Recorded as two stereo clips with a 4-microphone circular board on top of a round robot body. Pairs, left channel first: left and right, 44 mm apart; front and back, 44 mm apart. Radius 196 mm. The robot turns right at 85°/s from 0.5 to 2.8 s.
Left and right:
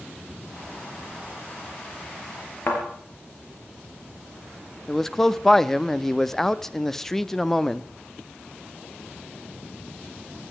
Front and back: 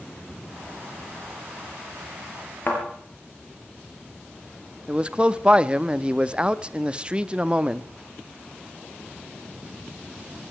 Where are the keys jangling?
No keys jangling in this recording.